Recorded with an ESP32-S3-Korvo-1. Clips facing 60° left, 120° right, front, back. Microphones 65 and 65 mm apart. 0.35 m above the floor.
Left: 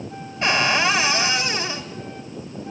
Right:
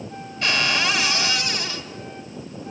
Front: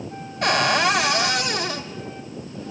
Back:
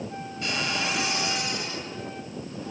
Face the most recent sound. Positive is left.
turn(degrees=0)